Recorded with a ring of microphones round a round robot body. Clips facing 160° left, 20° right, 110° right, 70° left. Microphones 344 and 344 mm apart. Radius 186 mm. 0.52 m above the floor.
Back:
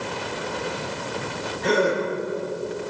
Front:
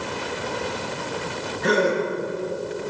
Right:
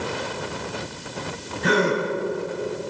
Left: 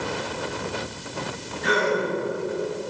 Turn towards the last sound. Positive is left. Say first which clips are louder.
# front 1 dB, right 2 dB
turn(degrees=-95)